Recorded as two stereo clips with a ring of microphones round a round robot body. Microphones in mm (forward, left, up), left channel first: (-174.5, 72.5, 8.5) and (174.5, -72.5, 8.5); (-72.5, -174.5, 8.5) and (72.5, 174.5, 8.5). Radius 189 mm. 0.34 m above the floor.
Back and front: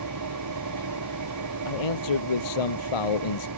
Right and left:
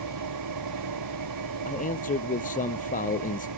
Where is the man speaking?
175° left.